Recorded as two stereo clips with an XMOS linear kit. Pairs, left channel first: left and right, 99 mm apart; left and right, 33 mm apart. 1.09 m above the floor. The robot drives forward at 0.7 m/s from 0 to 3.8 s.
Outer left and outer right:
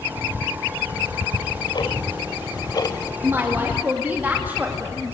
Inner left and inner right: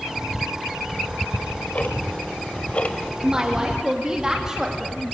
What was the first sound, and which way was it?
Ticking, 50° left (ahead or behind).